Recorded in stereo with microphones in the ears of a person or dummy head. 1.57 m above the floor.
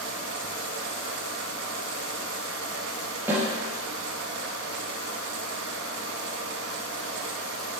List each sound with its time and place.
0.0 s a fan: 60° right (ahead or behind), 1.1 m
3.3 s a snare drum: 10° right (ahead or behind), 5 m